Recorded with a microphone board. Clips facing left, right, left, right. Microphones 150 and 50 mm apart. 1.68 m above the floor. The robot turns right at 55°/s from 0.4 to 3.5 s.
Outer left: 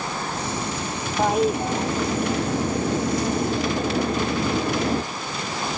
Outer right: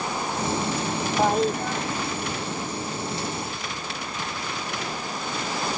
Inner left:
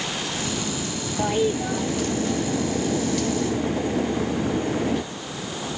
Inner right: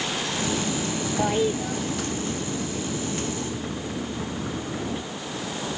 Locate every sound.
1.2 s a toilet flushing: 5° right; by 5.0 s 120° left